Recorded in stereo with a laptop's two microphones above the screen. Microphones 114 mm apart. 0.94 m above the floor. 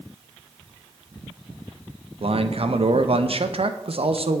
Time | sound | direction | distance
2.2 | a man speaking | 55° right (ahead or behind) | 0.6 m